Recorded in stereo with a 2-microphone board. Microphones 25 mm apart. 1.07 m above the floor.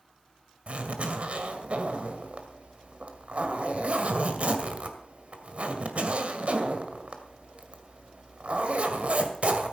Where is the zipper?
60° right (ahead or behind), 1.9 m.